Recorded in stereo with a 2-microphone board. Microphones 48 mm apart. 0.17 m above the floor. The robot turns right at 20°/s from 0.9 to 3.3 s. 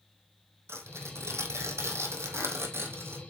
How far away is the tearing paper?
About 2 m.